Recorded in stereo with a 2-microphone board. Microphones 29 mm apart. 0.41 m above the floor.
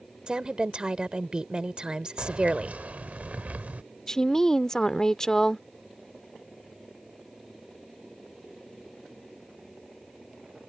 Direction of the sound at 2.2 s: 55° right (ahead or behind).